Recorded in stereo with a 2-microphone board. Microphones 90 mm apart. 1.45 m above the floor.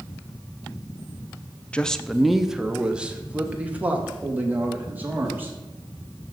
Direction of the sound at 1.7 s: 15° left (ahead or behind).